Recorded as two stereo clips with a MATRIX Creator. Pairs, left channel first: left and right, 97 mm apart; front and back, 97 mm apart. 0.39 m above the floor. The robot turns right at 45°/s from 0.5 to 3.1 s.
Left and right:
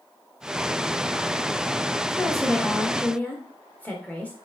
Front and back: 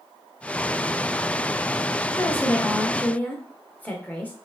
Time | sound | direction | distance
2.1 | a woman speaking | straight ahead | 0.9 m